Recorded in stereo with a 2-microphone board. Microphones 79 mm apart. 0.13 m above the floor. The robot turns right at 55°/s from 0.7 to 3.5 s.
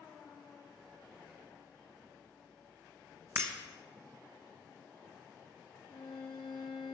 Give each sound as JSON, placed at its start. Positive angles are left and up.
{"t": 3.4, "sound": "breaking glass", "side_deg": -40, "distance_m": 1.0}
{"t": 5.9, "sound": "a violin", "side_deg": 70, "distance_m": 1.8}